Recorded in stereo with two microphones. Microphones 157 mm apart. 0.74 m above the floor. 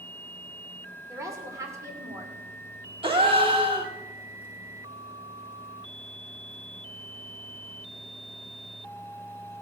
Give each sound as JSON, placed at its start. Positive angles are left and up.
{"t": 1.1, "sound": "a woman speaking", "side_deg": -20, "distance_m": 2.5}
{"t": 3.0, "sound": "a gasp", "side_deg": -35, "distance_m": 1.6}